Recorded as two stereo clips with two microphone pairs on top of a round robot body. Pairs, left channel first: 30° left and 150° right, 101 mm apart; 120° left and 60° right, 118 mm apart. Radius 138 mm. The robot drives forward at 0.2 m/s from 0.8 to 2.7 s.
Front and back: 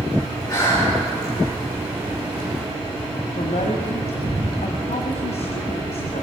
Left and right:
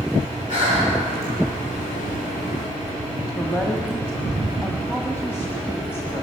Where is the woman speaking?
50° left, 1.3 m.